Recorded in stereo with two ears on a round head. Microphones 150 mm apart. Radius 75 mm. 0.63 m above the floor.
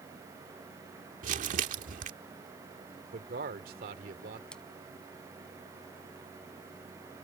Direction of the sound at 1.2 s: 55° right (ahead or behind).